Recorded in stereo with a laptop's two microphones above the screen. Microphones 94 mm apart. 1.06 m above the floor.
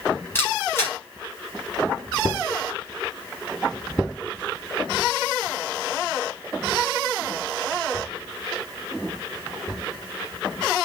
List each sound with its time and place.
0.3 s a camera shutter: 25° left (ahead or behind), 4 m